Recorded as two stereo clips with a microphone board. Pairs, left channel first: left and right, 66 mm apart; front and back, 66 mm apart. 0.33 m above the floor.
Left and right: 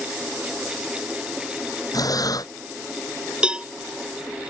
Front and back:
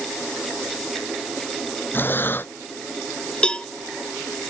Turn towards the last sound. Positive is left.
turn(degrees=-45)